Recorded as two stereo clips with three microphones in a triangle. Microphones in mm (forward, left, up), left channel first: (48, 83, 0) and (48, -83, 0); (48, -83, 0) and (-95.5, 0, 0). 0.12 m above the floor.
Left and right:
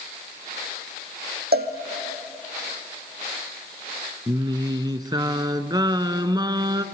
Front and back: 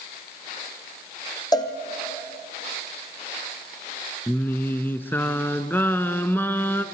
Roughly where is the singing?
Right.